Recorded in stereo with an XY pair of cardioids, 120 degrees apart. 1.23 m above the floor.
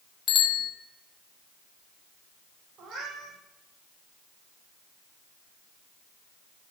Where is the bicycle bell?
60° left, 2.5 m.